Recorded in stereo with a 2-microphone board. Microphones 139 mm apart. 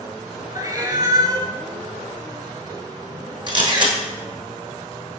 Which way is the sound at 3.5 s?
35° right (ahead or behind).